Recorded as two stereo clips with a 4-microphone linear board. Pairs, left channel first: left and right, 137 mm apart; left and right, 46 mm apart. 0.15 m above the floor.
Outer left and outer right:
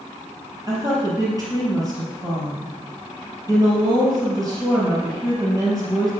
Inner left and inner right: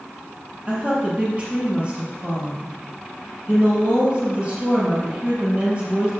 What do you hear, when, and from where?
0.7 s a woman speaking: 30° right (ahead or behind), 4 m